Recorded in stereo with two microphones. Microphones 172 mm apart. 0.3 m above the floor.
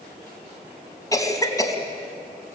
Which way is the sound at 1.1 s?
20° left (ahead or behind).